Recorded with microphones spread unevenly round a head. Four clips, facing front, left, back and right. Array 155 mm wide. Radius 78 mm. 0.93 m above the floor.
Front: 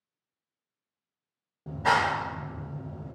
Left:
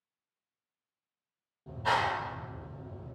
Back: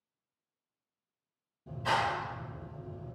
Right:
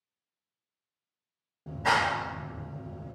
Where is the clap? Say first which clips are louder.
Right 3 dB, front 6 dB; 25° right, 0.6 m.